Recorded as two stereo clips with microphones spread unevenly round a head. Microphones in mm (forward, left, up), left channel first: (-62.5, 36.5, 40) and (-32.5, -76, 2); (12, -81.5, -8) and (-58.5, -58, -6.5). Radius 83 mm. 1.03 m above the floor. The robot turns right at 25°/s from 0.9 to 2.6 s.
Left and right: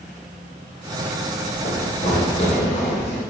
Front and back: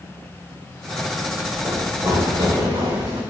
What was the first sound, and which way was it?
Running footsteps, 80° left.